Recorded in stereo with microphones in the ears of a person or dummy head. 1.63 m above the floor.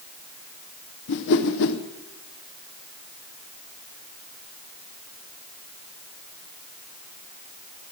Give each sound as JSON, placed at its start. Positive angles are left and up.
{"t": 1.1, "sound": "a whoosh", "side_deg": 65, "distance_m": 0.9}